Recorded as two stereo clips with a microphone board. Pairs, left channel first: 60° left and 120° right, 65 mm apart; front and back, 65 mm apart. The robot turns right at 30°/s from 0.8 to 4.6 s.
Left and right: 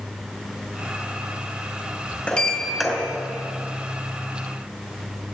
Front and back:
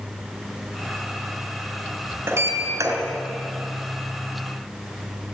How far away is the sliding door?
About 4.5 m.